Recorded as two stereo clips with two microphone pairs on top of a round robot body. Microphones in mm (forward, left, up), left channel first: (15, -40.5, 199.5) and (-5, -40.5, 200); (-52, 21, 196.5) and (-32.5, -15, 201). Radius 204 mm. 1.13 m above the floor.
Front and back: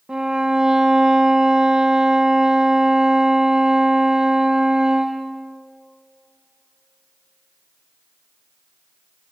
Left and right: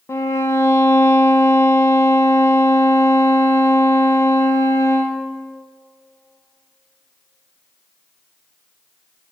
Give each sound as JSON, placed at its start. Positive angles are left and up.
{"t": 0.1, "sound": "a violin", "azimuth_deg": 130, "distance_m": 0.6}